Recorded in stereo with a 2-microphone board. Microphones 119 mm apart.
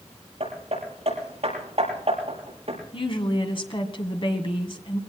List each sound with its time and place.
0.4 s hammering: 55° right (ahead or behind), 5.5 m
2.9 s a woman speaking: 45° left (ahead or behind), 2.0 m